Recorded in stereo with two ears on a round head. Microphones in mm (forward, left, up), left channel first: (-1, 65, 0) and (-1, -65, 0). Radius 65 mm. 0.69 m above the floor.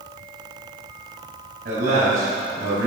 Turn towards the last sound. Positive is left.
turn(degrees=-70)  # may be behind; listen again after turning